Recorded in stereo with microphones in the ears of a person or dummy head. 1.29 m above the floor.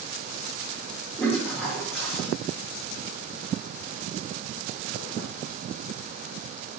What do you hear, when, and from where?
1.2 s a toilet flushing: centre (ahead or behind), 1.1 m